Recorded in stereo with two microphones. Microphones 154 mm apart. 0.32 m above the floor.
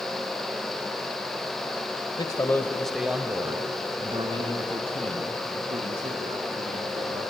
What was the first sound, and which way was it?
A man speaking, 30° left (ahead or behind).